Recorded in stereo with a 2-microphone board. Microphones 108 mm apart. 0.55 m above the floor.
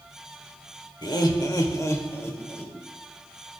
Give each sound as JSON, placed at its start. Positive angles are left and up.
{"t": 1.0, "sound": "laughter", "side_deg": 45, "distance_m": 1.4}